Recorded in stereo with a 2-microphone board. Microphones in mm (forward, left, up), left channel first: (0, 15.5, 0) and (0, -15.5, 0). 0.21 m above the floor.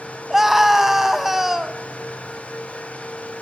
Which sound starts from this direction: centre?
A scream, at 0.3 s.